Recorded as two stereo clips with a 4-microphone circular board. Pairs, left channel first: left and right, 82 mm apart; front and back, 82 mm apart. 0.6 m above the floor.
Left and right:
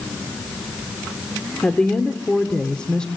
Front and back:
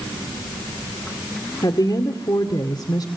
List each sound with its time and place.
1.6 s a woman speaking: 15° left, 2 m